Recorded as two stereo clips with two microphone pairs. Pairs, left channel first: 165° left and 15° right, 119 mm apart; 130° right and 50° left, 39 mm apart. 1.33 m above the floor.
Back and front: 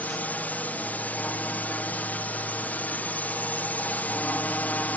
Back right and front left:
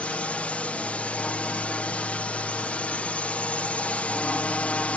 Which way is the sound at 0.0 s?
125° right.